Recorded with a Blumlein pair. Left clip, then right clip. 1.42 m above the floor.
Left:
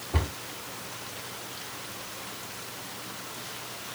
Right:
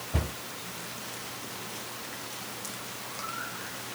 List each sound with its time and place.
0.1 s a cupboard door: 15° left, 2.5 m